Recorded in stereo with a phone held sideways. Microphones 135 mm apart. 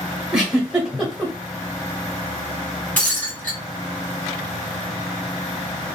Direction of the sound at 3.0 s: 10° left (ahead or behind).